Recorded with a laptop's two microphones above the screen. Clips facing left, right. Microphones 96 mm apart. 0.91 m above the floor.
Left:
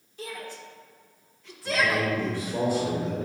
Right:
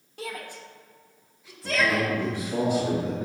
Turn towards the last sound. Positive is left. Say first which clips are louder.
# right 1 dB
turn(degrees=-65)  # may be behind; listen again after turning